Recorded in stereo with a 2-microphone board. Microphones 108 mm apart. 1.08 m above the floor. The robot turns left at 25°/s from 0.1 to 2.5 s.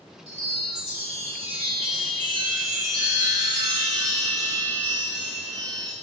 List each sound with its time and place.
0.3 s a chime: 90° right, 3 m; by 5.9 s 145° right, 3 m